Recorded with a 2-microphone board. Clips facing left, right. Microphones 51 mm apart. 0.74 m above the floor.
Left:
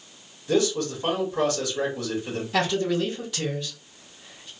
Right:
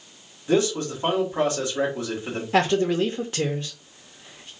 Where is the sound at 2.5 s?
40° right (ahead or behind), 0.6 m.